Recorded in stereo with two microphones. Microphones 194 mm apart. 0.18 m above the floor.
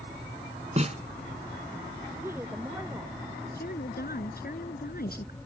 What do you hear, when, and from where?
0.8 s a snare drum: 35° right (ahead or behind)
2.2 s a woman speaking: 10° right (ahead or behind)
3.5 s a woman speaking: 55° left (ahead or behind)